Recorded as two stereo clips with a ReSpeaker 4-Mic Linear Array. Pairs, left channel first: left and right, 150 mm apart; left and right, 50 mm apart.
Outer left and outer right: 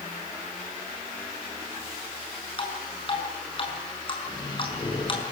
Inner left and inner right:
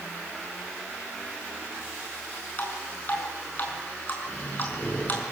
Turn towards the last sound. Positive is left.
turn(degrees=30)  # may be behind; listen again after turning